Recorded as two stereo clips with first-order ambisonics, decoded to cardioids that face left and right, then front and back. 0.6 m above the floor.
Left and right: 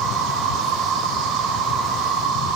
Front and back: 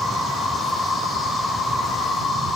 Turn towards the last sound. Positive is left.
turn(degrees=-75)